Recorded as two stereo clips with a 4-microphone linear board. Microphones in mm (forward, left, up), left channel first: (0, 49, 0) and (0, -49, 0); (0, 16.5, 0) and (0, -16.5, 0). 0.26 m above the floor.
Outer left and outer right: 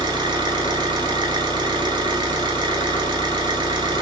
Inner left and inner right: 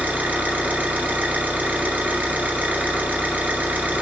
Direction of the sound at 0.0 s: 50° right (ahead or behind).